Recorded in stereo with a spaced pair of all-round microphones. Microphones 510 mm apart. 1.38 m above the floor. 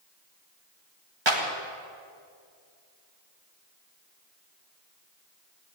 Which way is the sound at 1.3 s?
55° right (ahead or behind).